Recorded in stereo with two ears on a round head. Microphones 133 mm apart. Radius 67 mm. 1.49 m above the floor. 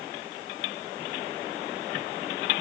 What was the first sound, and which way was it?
Only background noise.